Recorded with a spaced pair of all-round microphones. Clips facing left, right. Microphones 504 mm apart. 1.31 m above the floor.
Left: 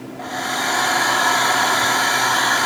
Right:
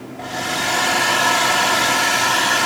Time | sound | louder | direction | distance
0.2 | a hair dryer | right 2 dB | 50° right (ahead or behind) | 0.7 m